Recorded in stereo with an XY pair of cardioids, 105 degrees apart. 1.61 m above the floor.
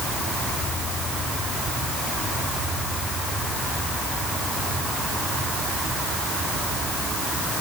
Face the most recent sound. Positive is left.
No sound to turn to.